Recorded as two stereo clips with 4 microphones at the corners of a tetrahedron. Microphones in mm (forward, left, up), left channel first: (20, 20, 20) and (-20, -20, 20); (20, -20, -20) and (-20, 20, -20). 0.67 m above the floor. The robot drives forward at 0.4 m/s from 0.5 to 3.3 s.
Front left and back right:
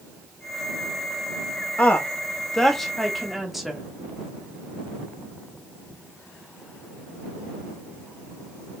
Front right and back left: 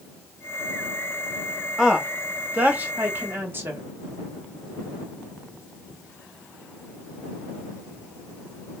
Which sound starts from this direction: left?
A woman speaking, at 1.8 s.